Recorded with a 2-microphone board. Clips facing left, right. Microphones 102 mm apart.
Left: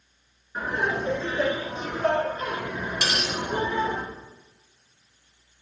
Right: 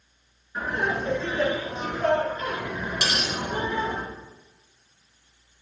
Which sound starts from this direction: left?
Laughter, at 0.6 s.